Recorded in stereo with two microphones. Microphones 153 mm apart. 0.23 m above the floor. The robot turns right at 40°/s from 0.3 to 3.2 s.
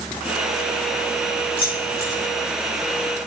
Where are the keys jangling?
40° left (ahead or behind), 4 m; by 2.2 s 15° left (ahead or behind), 4 m.